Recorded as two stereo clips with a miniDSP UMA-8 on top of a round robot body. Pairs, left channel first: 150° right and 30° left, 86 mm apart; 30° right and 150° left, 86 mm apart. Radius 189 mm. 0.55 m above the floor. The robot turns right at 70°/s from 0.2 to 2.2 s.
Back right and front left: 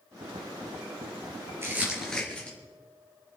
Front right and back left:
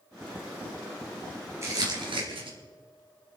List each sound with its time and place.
1.6 s crumpling: 90° left, 3 m; by 2.6 s 135° left, 3 m